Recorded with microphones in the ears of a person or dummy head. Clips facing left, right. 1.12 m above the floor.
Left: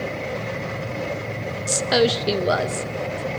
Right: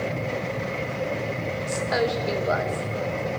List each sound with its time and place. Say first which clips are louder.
1.7 s a woman speaking: left 6 dB; 45° left (ahead or behind), 1.3 m